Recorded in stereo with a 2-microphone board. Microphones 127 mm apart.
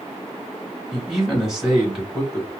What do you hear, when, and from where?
0.9 s a man speaking: 5° right (ahead or behind), 1.4 m